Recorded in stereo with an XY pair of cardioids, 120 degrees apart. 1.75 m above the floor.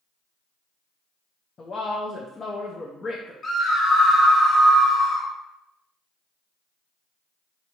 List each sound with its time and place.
1.6 s a woman speaking: 35° left, 0.6 m
3.4 s a scream: 40° left, 1.0 m